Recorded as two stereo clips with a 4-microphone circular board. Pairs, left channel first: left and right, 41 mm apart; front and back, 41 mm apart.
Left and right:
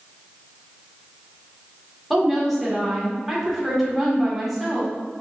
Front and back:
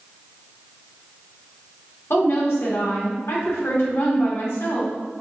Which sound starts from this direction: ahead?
A woman speaking, at 2.1 s.